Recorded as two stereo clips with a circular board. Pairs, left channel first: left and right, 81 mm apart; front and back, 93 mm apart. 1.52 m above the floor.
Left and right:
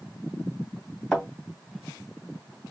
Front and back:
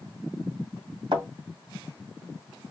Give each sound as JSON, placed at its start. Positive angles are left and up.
{"t": 1.1, "sound": "a thud", "azimuth_deg": 175, "distance_m": 2.5}